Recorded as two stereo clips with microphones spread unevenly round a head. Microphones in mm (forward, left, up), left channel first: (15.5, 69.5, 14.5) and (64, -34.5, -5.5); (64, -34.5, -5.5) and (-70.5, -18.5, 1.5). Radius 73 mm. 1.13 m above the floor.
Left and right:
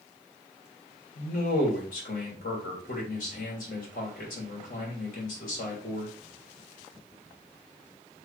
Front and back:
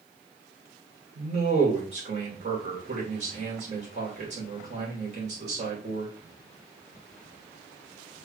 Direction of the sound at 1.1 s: 125° left.